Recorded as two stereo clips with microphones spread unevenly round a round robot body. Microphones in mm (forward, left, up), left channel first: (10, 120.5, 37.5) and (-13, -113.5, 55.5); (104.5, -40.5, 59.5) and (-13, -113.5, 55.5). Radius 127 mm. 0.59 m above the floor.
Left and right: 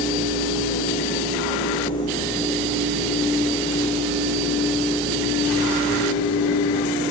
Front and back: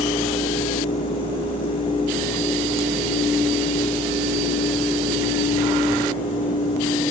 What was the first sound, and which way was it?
Only background noise.